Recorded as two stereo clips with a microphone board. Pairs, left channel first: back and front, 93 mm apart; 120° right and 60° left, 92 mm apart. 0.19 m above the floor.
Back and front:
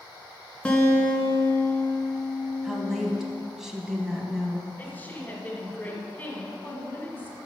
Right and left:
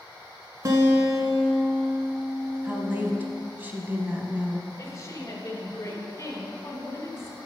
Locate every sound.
0.7 s a guitar: 105° left, 1.3 m
2.6 s a woman speaking: 75° left, 1.1 m
4.8 s a woman speaking: 125° right, 1.4 m